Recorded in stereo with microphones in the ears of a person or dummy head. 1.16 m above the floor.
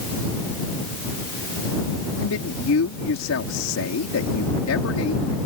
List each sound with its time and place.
2.2 s a man speaking: 65° left (ahead or behind)